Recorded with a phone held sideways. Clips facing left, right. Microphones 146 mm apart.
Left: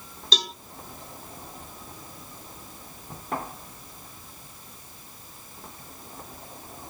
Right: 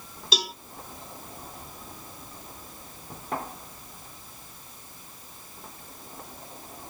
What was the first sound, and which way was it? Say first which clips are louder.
A cowbell: right 1 dB; 10° right (ahead or behind).